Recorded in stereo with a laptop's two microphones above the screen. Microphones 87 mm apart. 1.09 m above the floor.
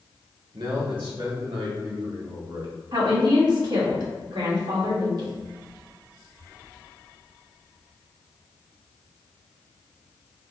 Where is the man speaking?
85° right, 1.1 m.